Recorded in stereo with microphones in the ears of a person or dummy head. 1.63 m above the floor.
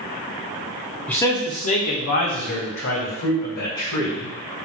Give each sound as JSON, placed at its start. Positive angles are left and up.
{"t": 1.1, "sound": "a man speaking", "side_deg": 5, "distance_m": 0.5}